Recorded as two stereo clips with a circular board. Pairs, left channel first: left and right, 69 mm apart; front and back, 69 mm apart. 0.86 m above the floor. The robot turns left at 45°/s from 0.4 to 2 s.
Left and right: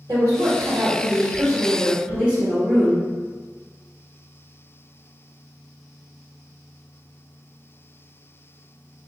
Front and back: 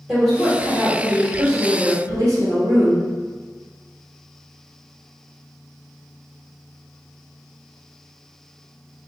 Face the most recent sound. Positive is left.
turn(degrees=-160)